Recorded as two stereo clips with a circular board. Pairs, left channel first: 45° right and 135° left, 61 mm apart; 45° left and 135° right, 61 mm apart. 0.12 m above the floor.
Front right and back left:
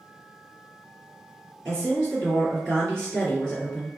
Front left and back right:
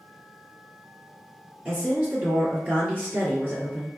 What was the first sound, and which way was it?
A woman speaking, 110° right.